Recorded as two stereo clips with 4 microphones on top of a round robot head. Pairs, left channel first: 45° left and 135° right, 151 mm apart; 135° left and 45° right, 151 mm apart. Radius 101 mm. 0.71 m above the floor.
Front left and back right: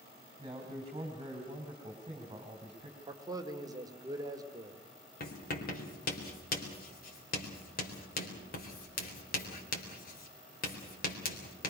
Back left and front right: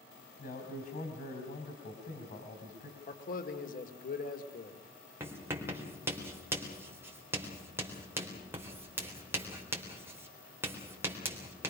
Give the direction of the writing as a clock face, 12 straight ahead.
11 o'clock.